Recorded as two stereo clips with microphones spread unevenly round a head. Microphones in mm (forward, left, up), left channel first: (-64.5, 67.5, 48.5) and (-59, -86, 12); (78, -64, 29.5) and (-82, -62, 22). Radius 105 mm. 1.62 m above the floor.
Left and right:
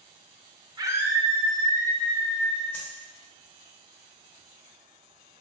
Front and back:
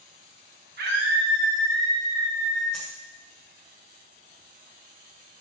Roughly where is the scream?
Behind right.